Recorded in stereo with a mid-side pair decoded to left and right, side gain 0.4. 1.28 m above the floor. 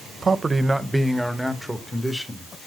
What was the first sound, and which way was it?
A man speaking, 35° right.